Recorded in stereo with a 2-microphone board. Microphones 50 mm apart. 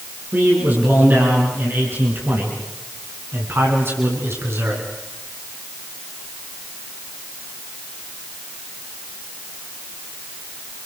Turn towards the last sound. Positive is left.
turn(degrees=-55)  # may be behind; listen again after turning